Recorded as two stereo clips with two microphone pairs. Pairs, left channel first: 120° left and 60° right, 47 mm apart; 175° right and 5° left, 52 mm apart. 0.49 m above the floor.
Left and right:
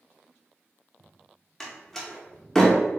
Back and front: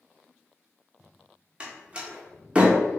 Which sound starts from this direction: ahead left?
A door slam, at 1.6 s.